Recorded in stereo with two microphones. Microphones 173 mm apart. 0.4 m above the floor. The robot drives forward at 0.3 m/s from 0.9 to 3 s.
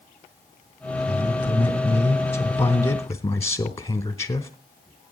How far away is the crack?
I don't hear a crack.